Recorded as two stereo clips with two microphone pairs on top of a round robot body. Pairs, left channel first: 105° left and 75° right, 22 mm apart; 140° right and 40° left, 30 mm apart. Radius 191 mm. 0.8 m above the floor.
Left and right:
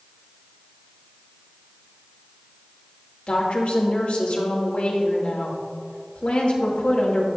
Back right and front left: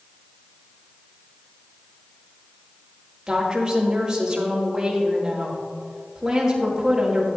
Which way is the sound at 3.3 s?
110° left.